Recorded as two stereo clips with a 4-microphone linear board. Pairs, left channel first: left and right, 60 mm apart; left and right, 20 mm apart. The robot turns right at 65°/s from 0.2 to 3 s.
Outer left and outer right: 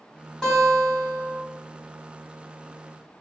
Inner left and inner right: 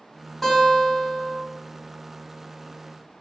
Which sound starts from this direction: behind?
A guitar, at 0.4 s.